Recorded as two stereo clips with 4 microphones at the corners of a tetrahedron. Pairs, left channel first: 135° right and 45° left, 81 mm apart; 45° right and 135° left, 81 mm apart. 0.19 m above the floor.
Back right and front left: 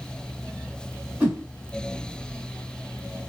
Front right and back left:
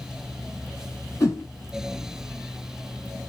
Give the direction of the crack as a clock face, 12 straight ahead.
I don't hear a crack.